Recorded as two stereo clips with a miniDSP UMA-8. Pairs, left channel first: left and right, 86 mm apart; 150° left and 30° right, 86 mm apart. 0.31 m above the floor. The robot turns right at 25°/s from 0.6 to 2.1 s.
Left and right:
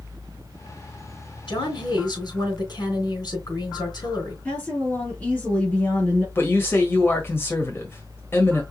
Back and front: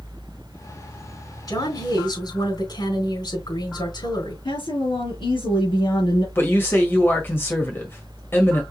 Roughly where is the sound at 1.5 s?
Left.